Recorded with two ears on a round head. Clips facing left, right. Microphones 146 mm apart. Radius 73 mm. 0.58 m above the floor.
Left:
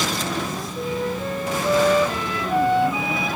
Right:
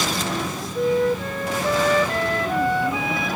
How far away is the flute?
About 10 m.